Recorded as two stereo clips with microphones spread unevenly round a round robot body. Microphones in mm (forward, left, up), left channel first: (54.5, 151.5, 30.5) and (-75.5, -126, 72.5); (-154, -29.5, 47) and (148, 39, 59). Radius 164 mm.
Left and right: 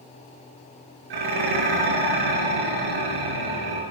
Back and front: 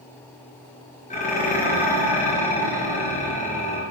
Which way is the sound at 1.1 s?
100° right.